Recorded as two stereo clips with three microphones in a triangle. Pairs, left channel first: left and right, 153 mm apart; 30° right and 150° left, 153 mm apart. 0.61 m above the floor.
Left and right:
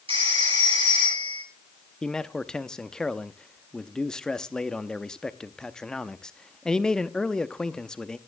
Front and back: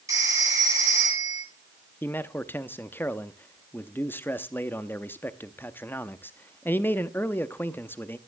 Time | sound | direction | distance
0.1 | a phone ringing | 140° right | 10 m
2.0 | a man speaking | 15° left | 0.6 m